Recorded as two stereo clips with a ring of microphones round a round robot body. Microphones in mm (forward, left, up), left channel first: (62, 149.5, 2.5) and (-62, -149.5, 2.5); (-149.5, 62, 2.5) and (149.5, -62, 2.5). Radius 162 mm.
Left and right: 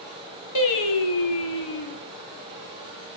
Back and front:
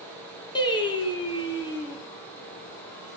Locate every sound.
0.6 s singing: 80° left, 2.5 m